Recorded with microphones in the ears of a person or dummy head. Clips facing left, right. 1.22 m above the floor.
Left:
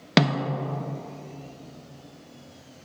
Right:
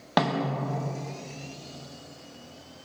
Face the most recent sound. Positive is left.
turn(degrees=25)  # may be behind; listen again after turning